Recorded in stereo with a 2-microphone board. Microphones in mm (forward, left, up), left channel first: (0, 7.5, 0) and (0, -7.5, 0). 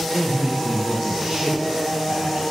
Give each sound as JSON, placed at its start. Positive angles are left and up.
{"t": 0.1, "sound": "a man speaking", "side_deg": -60, "distance_m": 0.9}